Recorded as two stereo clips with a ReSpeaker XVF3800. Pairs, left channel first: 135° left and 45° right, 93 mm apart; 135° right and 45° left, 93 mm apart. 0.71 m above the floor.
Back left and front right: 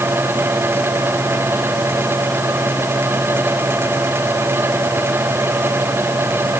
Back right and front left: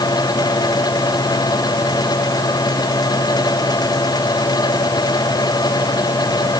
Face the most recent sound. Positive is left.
No sound to turn to.